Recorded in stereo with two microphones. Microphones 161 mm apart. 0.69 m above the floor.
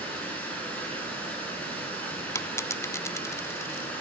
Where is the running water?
10° left (ahead or behind), 6 m.